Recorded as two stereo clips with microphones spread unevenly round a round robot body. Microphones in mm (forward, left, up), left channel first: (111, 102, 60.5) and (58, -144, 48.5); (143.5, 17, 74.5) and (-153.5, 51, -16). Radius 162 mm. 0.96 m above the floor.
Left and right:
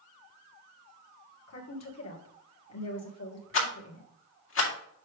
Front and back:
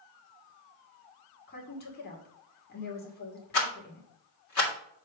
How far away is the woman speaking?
About 2 m.